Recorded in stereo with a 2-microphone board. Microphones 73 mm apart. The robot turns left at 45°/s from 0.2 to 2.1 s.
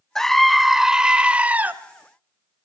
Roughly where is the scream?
Centre.